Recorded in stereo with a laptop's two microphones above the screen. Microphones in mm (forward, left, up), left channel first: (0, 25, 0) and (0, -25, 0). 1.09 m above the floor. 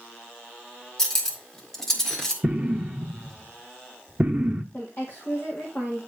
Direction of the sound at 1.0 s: 10° left (ahead or behind).